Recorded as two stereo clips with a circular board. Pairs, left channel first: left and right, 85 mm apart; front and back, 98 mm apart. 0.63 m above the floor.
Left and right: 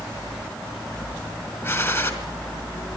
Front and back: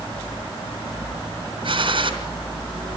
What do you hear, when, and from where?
1.6 s a gunshot: 150° left, 3 m